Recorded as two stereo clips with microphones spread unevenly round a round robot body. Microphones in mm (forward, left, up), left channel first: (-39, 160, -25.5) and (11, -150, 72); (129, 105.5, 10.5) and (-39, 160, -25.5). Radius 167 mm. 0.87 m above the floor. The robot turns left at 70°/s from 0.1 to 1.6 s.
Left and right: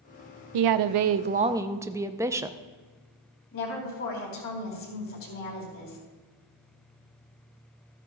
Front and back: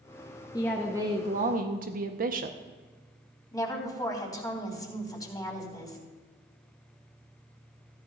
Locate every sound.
0.5 s a woman speaking: 95° right, 0.5 m; by 2.6 s 170° right, 0.5 m
3.5 s a woman speaking: 55° left, 3.5 m